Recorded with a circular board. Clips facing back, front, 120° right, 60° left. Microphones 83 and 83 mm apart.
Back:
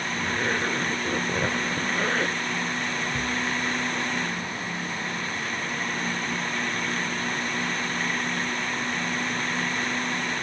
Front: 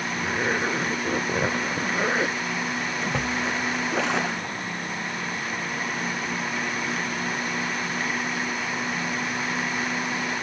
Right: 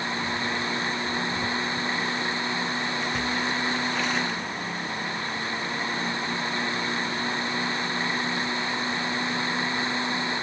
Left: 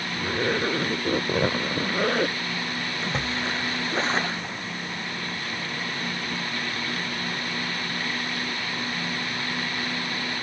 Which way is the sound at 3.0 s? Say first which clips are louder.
Front 2 dB, left 1 dB; 5° left.